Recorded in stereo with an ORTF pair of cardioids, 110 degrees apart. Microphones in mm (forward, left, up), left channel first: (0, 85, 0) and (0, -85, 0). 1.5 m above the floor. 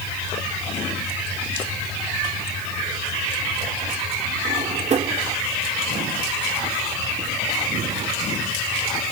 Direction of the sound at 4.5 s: 45° right.